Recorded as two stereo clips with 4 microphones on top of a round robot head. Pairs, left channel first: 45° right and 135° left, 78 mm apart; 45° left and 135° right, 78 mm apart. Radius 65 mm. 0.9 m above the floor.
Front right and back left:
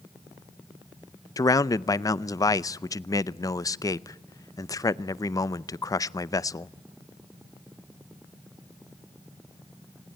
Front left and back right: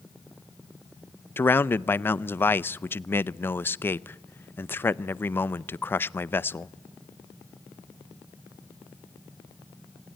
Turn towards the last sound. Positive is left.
turn(degrees=-15)